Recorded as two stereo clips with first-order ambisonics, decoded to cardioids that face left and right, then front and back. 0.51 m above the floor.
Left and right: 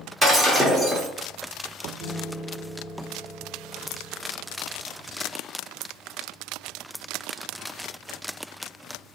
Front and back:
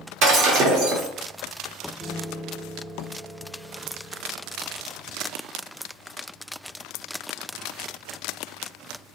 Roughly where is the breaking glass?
Behind.